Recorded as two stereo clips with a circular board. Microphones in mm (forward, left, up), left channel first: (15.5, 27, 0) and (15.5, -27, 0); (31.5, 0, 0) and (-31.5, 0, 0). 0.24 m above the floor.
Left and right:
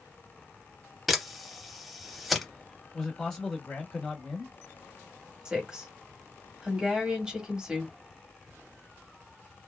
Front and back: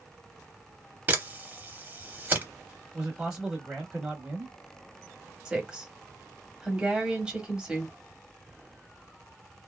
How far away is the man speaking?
About 1.0 m.